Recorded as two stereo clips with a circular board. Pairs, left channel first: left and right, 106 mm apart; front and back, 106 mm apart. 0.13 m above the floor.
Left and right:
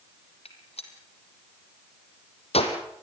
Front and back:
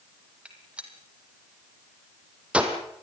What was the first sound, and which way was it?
A gunshot, 100° left.